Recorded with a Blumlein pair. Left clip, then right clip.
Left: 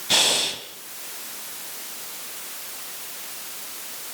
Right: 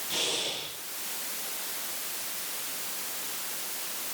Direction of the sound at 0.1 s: 50° left.